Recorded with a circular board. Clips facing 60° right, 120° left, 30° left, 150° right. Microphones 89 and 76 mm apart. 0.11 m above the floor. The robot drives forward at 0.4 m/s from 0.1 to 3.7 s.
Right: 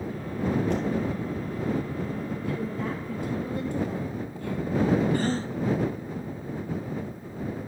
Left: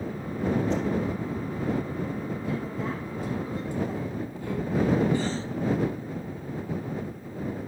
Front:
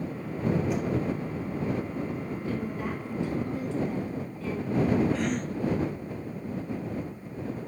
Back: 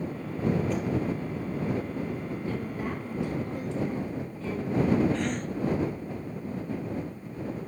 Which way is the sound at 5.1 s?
55° right.